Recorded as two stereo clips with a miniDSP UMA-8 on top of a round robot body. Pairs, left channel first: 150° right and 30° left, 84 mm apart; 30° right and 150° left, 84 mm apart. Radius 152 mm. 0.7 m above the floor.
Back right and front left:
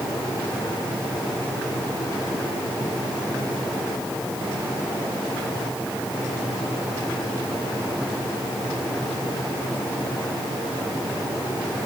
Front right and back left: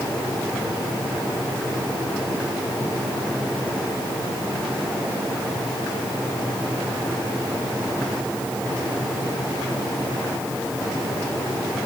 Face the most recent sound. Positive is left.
No sound to turn to.